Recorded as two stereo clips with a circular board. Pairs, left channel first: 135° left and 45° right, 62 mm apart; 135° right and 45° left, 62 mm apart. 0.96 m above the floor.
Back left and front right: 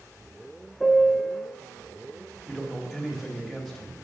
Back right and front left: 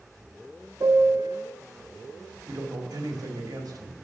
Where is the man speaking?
40° left, 1.9 m.